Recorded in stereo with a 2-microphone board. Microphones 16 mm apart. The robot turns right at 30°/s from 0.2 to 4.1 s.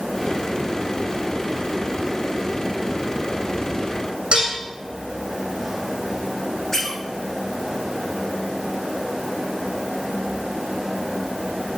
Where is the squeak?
20° left (ahead or behind), 6.5 m.